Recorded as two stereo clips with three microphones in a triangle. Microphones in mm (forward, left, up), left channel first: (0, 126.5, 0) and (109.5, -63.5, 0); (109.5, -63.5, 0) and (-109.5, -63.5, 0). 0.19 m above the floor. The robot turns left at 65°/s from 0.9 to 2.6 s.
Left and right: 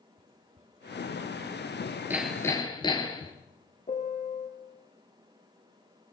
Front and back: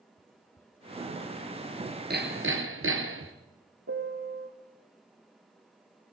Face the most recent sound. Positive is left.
turn(degrees=175)